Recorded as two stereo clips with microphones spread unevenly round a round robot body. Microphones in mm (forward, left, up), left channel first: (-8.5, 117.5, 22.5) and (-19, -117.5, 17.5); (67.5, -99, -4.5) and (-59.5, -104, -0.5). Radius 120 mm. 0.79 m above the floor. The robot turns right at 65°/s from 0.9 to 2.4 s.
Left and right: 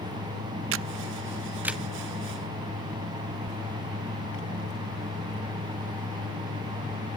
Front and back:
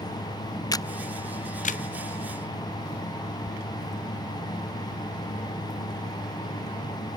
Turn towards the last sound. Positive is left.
turn(degrees=35)